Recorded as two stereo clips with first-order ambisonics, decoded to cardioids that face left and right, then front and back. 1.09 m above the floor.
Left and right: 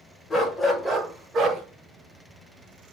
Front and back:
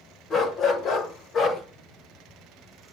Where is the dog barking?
30° left, 1.0 m; by 1.6 s 40° right, 1.1 m.